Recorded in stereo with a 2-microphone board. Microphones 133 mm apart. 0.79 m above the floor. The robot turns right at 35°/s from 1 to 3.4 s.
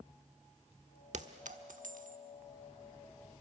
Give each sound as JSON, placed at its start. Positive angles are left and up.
{"t": 1.1, "sound": "a clink", "side_deg": -65, "distance_m": 1.0}